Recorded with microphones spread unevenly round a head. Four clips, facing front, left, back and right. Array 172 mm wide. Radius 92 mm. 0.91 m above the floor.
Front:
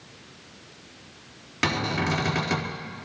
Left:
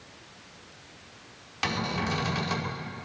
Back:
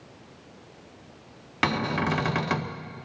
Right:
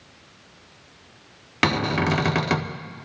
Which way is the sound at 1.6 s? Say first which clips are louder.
Right 8 dB, back 1 dB; 95° right.